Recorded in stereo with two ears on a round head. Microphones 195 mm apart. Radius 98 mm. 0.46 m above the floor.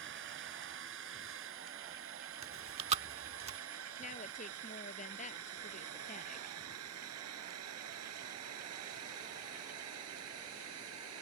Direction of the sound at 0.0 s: 60° right (ahead or behind).